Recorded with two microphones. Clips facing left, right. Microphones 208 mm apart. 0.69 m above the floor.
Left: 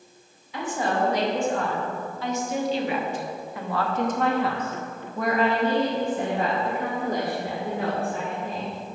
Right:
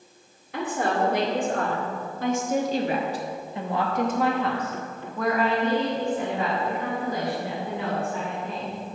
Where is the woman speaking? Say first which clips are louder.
Right 1 dB; 60° right (ahead or behind), 2 m; by 8.8 s 50° left (ahead or behind), 3 m.